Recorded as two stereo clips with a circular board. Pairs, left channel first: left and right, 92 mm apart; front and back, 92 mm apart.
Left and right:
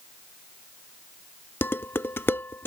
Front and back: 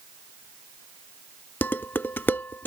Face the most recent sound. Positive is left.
turn(degrees=45)